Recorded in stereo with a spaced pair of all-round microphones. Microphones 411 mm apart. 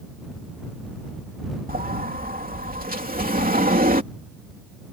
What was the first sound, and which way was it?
A sliding door, 20° right (ahead or behind).